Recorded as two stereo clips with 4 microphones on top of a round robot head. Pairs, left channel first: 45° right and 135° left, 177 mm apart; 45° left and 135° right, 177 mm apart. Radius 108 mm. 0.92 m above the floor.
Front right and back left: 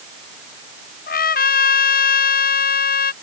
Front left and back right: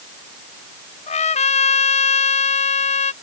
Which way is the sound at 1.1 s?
10° right.